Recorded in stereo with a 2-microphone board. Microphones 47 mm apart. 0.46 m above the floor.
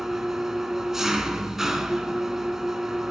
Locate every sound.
0.0 s an engine running: 5° right (ahead or behind), 1.2 m